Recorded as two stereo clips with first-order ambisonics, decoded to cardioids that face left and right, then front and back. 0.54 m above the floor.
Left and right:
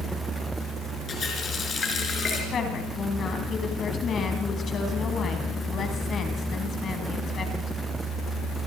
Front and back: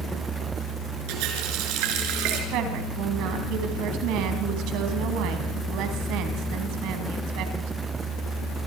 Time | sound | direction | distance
1.1 | a running tap | 160° left | 4.5 m
2.5 | a woman speaking | 150° left | 3.5 m